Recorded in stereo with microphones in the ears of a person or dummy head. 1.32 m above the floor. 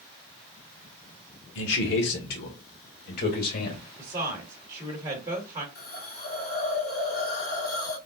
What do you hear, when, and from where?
1.6 s a man speaking: 70° left (ahead or behind), 1.5 m; by 3.8 s 50° left (ahead or behind), 2.5 m
4.0 s a woman speaking: 25° right (ahead or behind), 1.7 m
5.8 s a hiss: 60° left (ahead or behind), 2.5 m